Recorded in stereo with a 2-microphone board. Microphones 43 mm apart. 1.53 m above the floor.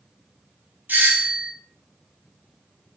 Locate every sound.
0.9 s a doorbell: 50° right (ahead or behind), 1.1 m